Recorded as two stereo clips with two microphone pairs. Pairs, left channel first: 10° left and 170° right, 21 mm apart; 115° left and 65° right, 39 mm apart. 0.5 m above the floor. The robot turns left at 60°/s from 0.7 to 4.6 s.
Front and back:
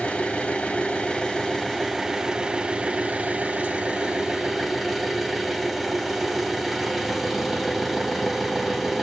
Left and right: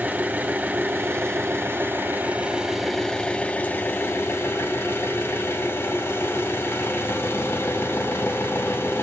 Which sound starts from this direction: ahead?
An engine running, at 0.0 s.